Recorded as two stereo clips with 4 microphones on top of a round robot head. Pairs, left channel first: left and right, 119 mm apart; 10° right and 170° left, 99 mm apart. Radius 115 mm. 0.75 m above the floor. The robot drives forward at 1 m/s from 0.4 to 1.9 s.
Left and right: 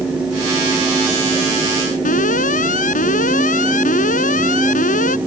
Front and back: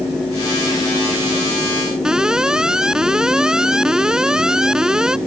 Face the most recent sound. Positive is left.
turn(degrees=85)